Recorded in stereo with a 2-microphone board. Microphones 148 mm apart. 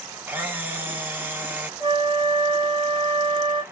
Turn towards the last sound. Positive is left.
turn(degrees=-25)  # may be behind; listen again after turning